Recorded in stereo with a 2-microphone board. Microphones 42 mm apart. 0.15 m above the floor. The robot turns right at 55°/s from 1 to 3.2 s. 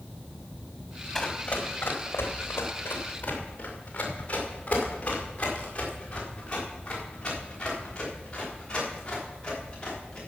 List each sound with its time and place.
1.1 s running footsteps: 15° left (ahead or behind), 2.5 m